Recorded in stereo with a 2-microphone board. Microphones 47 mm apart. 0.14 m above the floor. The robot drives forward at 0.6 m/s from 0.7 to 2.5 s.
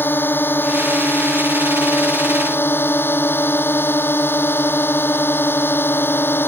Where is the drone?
45° left (ahead or behind); by 6.5 s 50° left (ahead or behind).